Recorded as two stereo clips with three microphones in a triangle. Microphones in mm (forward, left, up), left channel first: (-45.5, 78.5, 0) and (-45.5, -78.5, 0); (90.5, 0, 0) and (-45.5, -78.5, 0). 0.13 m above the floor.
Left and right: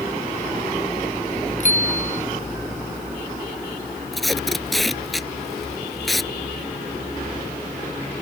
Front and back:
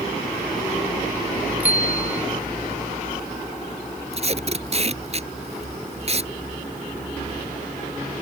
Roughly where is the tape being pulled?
Behind.